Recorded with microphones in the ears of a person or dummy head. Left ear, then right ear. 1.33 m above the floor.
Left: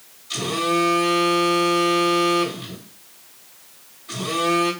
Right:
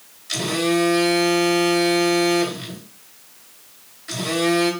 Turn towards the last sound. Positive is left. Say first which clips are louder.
# right 1 dB
turn(degrees=-55)  # may be behind; listen again after turning